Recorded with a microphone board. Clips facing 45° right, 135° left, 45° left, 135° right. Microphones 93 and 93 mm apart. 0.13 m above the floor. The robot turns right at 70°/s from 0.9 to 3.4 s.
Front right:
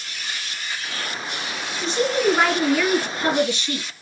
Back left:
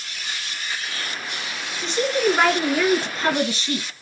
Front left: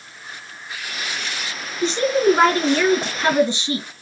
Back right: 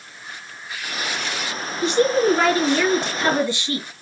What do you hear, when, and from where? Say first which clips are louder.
1.8 s a woman speaking: front right 1 dB, even; 5° right, 2 m; by 3.9 s 105° left, 2 m